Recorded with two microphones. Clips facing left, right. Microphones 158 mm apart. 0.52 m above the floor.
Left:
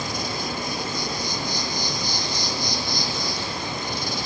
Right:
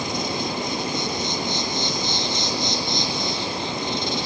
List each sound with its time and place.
0.0 s an insect: 20° right (ahead or behind), 2.5 m